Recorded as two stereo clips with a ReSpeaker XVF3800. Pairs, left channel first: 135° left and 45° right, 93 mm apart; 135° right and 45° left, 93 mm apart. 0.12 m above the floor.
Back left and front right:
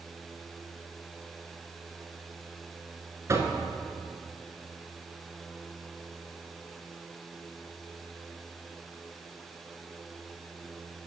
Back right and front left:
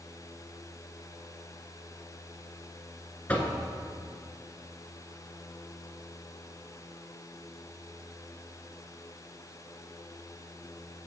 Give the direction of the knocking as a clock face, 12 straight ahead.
2 o'clock.